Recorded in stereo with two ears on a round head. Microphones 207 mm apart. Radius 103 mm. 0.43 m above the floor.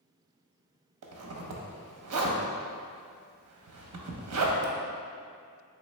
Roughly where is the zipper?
Right.